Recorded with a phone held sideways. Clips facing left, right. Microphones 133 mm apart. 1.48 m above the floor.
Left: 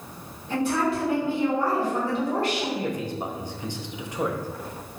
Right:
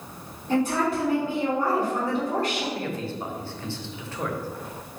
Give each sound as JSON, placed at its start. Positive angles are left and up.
{"t": 0.5, "sound": "a woman speaking", "side_deg": -40, "distance_m": 1.8}
{"t": 2.8, "sound": "a man speaking", "side_deg": 15, "distance_m": 0.6}